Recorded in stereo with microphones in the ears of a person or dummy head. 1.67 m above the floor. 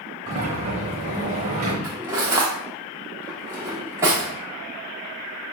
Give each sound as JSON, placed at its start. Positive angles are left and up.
{"t": 0.3, "sound": "a sliding door", "side_deg": -35, "distance_m": 0.8}
{"t": 1.8, "sound": "cutlery clinking", "side_deg": -15, "distance_m": 0.8}